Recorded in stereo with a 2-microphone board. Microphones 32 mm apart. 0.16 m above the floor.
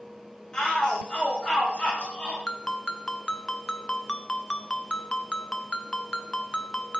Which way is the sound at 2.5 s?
20° left (ahead or behind).